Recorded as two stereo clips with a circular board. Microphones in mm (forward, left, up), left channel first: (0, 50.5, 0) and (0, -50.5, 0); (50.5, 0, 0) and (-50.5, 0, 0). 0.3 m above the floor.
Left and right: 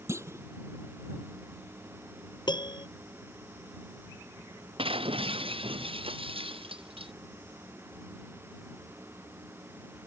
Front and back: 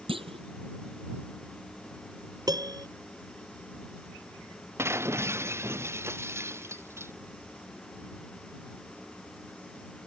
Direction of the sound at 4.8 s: 115° right.